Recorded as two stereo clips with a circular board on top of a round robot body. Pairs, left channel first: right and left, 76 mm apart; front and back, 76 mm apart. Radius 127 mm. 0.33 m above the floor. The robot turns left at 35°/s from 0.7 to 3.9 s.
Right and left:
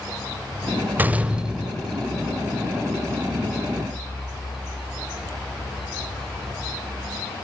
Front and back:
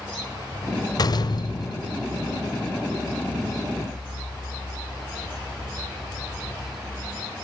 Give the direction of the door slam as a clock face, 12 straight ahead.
11 o'clock.